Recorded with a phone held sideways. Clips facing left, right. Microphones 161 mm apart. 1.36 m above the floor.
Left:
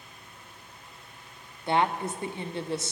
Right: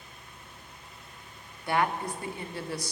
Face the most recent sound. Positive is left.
turn(degrees=25)  # may be behind; listen again after turning